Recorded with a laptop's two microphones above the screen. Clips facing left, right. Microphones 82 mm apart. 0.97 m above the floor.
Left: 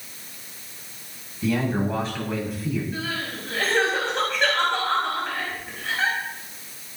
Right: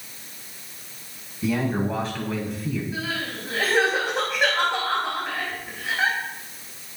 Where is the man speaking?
5° right (ahead or behind), 8 m; by 2.8 s 5° left (ahead or behind), 8.5 m.